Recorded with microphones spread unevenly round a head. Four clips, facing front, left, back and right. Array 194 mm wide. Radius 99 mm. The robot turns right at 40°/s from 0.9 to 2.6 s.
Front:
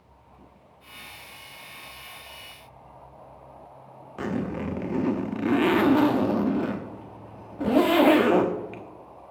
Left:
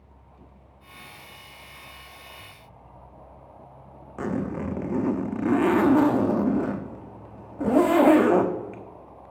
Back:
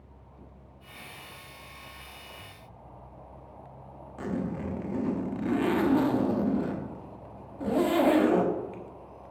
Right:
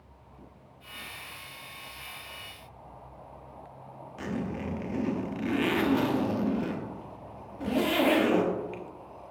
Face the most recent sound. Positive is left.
turn(degrees=45)